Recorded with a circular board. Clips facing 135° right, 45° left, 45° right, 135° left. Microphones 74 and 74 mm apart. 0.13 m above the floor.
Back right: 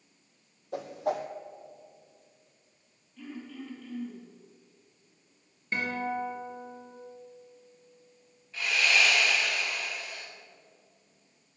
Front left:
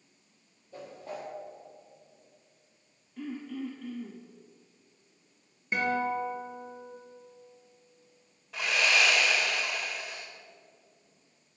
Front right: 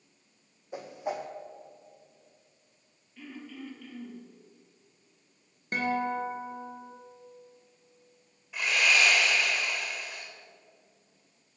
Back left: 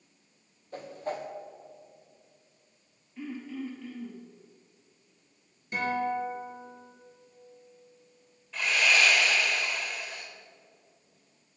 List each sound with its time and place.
0.7 s a whoosh: 125° right, 1.1 m
3.2 s throat clearing: 65° left, 3 m
5.7 s a guitar: 30° right, 2.5 m
8.5 s sawing: 35° left, 3.5 m